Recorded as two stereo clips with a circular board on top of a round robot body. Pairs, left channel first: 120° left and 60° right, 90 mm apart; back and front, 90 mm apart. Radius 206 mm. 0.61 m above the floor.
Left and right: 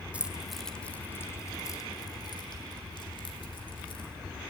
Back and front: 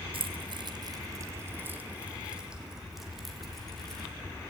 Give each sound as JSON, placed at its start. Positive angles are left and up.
{"t": 0.1, "sound": "keys jangling", "azimuth_deg": 15, "distance_m": 1.1}